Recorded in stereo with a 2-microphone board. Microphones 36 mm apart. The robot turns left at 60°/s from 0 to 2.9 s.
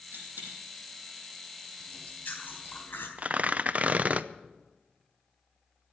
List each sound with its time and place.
0.1 s a dropped coin: 70° right (ahead or behind), 5.5 m; by 0.6 s 45° right (ahead or behind), 5.5 m
1.8 s chewing: 150° left, 3.5 m; by 3.1 s 85° left, 3.5 m
3.2 s tearing paper: 40° right (ahead or behind), 0.5 m